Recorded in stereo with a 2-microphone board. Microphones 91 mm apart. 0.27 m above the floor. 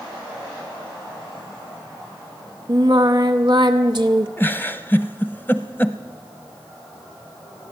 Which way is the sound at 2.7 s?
55° right (ahead or behind).